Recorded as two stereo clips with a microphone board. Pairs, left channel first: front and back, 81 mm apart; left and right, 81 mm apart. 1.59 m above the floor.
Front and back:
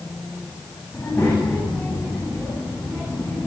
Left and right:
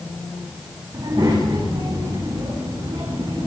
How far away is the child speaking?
About 8 m.